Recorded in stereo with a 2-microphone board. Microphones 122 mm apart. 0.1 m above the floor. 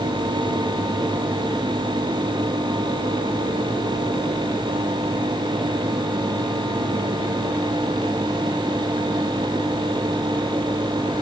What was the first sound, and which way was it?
Only background noise.